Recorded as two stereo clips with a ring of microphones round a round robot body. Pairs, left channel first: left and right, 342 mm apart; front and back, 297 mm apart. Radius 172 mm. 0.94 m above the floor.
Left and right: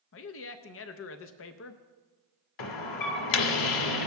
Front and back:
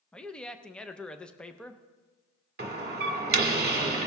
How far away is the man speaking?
About 0.5 m.